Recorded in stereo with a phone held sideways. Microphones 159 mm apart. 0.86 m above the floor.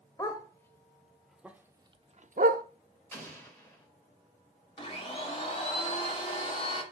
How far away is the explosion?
About 4 m.